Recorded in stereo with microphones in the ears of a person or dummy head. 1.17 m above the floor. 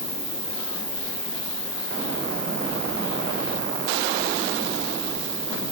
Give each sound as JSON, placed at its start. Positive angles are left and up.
{"t": 0.0, "sound": "an insect", "side_deg": -50, "distance_m": 9.5}